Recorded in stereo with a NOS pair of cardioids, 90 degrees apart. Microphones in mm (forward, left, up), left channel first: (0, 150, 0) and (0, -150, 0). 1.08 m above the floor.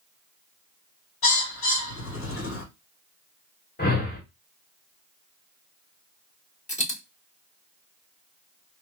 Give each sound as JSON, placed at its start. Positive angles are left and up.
{"t": 1.2, "sound": "a bird", "azimuth_deg": 45, "distance_m": 2.0}
{"t": 3.8, "sound": "a whoosh", "azimuth_deg": 30, "distance_m": 2.0}
{"t": 6.7, "sound": "a dropped coin", "azimuth_deg": 25, "distance_m": 1.9}